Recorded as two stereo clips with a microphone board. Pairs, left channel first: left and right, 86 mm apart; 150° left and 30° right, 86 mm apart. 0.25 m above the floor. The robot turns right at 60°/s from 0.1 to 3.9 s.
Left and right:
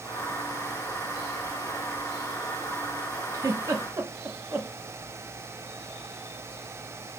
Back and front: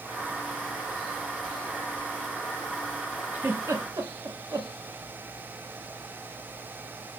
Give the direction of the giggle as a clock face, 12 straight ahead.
3 o'clock.